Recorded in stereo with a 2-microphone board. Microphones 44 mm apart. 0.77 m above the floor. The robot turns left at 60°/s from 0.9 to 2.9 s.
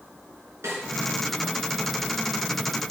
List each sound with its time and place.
0.6 s a snare drum: 75° right (ahead or behind), 3.5 m